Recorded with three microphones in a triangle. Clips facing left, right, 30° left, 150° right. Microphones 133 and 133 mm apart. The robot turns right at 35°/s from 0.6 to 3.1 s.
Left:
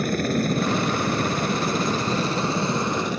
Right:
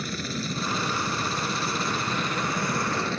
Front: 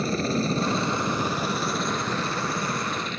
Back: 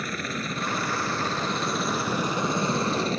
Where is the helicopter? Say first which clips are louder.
Left 10 dB, front 7 dB; 85° left; by 3.2 s 165° left.